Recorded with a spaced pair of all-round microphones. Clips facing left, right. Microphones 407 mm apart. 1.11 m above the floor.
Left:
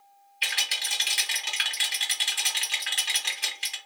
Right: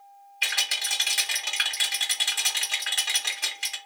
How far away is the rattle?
About 1.3 m.